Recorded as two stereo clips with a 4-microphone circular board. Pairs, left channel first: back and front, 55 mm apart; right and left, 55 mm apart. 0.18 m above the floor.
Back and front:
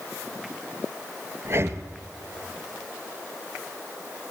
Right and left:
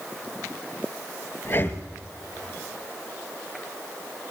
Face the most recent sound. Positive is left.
turn(degrees=-45)